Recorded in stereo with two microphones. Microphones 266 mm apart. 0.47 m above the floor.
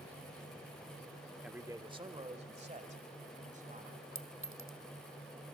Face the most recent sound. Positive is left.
turn(degrees=-50)  # may be behind; listen again after turning